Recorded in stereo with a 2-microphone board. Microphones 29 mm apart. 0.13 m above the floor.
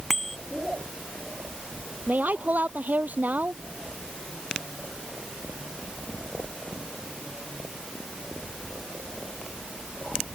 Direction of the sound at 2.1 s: 65° right (ahead or behind).